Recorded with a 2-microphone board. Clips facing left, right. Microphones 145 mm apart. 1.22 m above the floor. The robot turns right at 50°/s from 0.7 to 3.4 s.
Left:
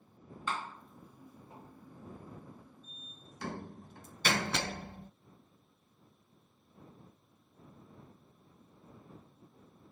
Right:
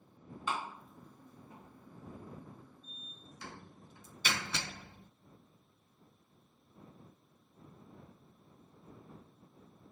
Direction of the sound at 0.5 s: 10° right (ahead or behind).